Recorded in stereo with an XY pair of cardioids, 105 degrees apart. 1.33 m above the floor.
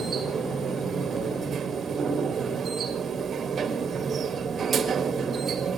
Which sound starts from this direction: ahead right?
A machine running, at 0.0 s.